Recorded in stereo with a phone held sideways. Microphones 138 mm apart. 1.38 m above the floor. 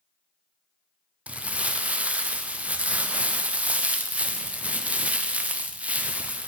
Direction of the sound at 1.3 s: 10° right (ahead or behind).